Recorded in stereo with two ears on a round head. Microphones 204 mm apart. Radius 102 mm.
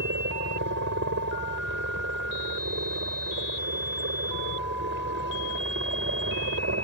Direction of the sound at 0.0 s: 55° right (ahead or behind).